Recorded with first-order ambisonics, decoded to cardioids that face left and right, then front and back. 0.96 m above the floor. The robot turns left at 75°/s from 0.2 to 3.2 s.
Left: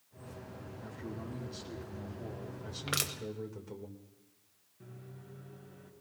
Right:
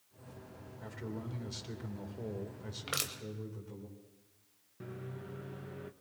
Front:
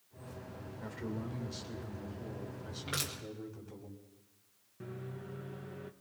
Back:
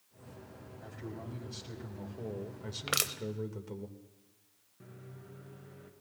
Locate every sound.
0.8 s a man speaking: 25° right, 2.5 m; by 3.9 s 155° left, 2.5 m
2.9 s crushing: 175° left, 0.8 m; by 3.1 s 155° left, 0.8 m
4.8 s a microwave: 55° right, 0.8 m